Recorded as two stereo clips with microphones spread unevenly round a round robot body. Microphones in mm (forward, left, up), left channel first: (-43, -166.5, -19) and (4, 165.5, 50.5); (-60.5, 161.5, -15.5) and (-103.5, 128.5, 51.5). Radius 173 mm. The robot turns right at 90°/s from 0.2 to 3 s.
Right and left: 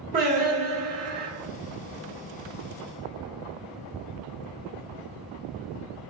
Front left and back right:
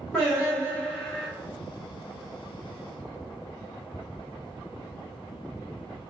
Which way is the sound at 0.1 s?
10° left.